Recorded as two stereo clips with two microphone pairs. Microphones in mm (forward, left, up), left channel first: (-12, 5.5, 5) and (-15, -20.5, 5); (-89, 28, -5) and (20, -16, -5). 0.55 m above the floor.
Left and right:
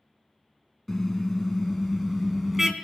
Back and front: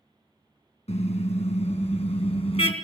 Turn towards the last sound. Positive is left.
turn(degrees=-175)